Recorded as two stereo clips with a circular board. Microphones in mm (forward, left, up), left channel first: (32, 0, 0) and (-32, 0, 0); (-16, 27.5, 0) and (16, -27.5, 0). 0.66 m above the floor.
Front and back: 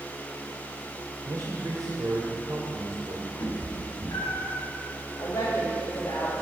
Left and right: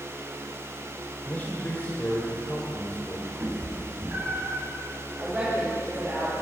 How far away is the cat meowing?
About 2 m.